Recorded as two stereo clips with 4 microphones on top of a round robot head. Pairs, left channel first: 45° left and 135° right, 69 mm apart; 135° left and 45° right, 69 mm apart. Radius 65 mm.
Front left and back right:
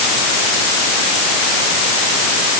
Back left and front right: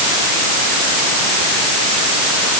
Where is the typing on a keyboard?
No typing on a keyboard in this recording.